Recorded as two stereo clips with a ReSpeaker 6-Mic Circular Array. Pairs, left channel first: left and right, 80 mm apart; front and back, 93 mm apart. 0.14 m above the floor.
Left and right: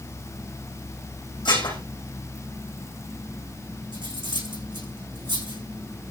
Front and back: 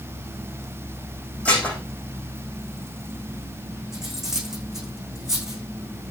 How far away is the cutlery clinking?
About 6 m.